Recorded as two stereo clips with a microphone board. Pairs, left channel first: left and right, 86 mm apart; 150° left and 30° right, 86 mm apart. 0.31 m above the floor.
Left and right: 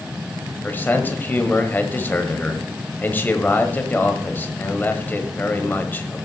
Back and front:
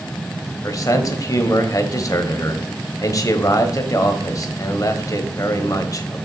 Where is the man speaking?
150° left, 1.2 m.